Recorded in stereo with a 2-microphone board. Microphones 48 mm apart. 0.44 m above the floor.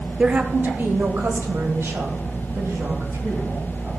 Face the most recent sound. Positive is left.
turn(degrees=-75)  # may be behind; listen again after turning